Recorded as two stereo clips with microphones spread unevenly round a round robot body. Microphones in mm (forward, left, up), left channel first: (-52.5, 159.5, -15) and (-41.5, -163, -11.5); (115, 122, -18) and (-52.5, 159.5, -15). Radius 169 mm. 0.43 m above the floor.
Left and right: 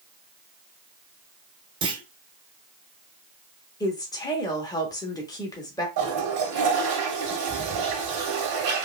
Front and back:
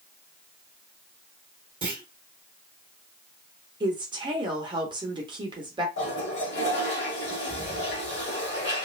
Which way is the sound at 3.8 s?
155° left.